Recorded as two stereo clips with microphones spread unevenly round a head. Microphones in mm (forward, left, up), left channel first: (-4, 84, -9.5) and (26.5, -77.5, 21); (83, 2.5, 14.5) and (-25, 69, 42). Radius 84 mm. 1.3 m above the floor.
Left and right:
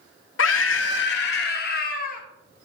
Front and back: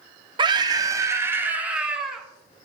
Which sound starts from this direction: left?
A scream, at 0.4 s.